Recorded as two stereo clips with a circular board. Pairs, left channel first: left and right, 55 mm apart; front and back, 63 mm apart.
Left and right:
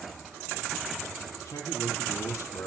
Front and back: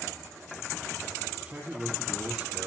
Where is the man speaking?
110° left, 9.5 m.